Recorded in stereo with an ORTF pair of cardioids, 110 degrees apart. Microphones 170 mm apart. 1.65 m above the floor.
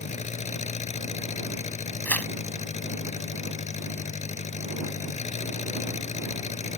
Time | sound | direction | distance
0.0 | an engine running | 40° left | ?
2.0 | tearing paper | 10° left | ?